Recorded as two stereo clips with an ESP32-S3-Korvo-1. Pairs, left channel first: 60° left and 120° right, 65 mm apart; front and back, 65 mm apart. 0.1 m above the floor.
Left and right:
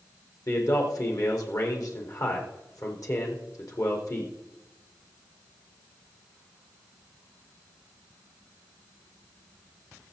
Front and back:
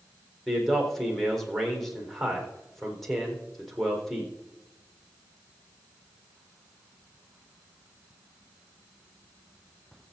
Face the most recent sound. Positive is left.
turn(degrees=85)